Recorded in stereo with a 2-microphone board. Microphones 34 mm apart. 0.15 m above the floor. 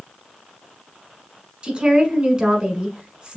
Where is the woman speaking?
30° right (ahead or behind), 1.1 m.